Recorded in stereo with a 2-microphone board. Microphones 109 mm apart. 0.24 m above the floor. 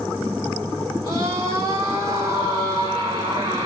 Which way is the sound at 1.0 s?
45° right (ahead or behind).